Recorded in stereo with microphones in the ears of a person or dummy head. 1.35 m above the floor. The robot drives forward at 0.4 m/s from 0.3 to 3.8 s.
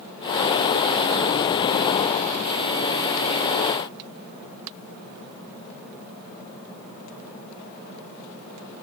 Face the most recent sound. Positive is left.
No sound to turn to.